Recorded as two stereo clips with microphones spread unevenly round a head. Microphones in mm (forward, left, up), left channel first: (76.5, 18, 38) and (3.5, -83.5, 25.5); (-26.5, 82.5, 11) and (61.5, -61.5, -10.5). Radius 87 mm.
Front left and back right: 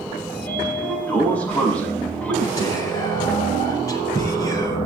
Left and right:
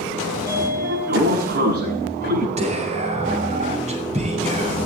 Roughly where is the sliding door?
Ahead.